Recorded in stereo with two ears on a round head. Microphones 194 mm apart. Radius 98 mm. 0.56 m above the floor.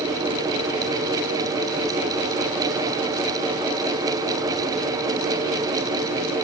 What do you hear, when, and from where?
Only background noise.